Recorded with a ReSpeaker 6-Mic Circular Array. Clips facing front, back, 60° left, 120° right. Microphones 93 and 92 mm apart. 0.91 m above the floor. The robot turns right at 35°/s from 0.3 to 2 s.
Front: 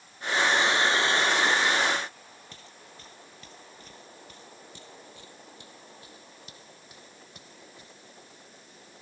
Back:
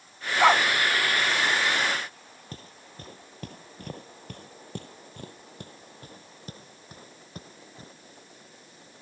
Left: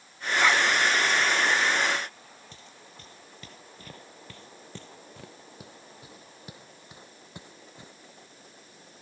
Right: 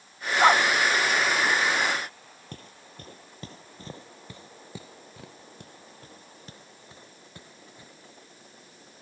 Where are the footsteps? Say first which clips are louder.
Back 4 dB, right 4 dB; 140° right; by 7.9 s 125° left.